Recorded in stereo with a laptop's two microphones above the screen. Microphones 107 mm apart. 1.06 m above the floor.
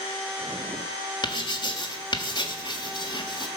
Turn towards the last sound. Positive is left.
turn(degrees=40)  # may be behind; listen again after turning